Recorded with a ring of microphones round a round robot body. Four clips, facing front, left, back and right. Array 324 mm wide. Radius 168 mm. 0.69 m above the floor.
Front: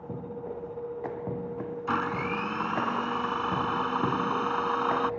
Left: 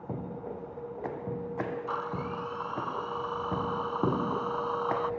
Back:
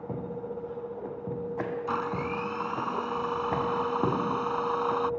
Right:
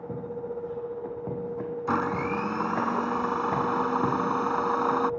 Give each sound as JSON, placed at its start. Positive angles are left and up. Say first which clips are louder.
{"t": 1.9, "sound": "a blender", "louder": "right 7 dB, front 5 dB", "azimuth_deg": -75}